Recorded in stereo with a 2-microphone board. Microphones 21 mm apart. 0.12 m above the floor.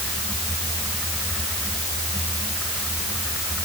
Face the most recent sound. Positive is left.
No sound to turn to.